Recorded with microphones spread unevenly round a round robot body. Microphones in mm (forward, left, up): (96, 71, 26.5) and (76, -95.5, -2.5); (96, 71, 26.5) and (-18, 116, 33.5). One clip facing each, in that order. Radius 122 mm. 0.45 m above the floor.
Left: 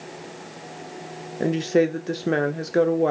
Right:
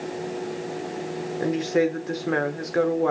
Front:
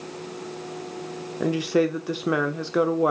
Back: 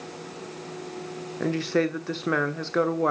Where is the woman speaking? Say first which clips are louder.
Left 2 dB, front 3 dB; 35° left, 1.0 m.